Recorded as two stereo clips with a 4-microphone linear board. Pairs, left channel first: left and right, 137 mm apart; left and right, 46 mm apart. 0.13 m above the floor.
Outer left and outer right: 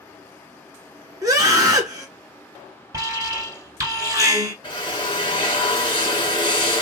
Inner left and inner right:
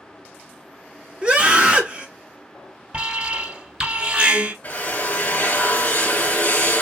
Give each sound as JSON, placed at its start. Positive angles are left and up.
{"t": 1.2, "sound": "a scream", "side_deg": -25, "distance_m": 1.8}
{"t": 2.9, "sound": "an alarm", "side_deg": -25, "distance_m": 1.2}
{"t": 4.6, "sound": "a drill", "side_deg": 35, "distance_m": 1.3}